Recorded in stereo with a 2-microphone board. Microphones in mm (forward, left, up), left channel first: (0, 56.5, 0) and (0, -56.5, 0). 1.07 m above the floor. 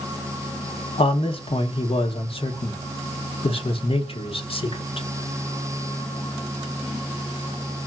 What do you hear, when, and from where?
1.0 s a man speaking: 55° left (ahead or behind), 0.8 m